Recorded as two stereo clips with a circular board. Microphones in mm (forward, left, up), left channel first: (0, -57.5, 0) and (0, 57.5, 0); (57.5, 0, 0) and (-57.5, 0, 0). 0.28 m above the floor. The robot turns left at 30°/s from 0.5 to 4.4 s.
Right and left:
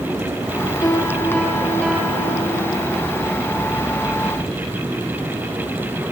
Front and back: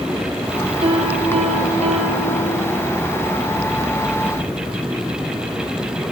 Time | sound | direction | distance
0.8 | a piano | 140° right | 5.5 m